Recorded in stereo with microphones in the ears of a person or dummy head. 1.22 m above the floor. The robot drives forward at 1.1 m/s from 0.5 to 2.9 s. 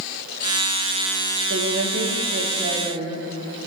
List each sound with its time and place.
1.5 s a woman speaking: 70° right (ahead or behind), 1.7 m; by 3.2 s 35° right (ahead or behind), 2.5 m